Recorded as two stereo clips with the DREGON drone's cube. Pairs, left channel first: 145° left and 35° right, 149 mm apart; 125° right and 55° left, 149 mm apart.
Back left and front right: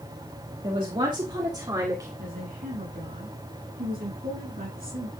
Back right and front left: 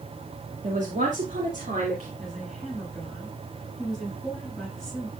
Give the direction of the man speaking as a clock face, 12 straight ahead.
11 o'clock.